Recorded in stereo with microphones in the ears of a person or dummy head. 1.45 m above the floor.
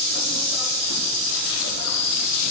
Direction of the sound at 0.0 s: 80° left.